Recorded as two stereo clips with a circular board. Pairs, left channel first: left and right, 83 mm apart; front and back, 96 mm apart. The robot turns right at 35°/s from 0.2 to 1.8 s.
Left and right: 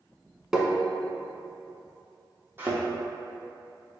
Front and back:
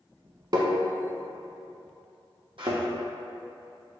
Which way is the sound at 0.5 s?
170° right.